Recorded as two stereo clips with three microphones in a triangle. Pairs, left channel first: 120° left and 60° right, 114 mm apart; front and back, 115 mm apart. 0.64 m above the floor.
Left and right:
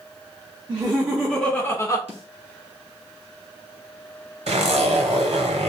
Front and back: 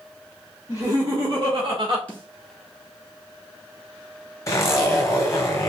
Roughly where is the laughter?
Behind right.